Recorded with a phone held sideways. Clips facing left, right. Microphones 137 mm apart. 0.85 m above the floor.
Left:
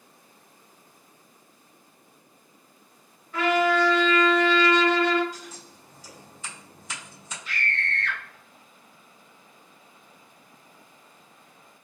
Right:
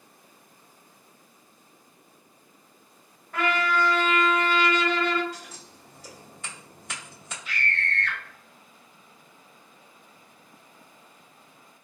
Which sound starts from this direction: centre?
A scream, at 7.5 s.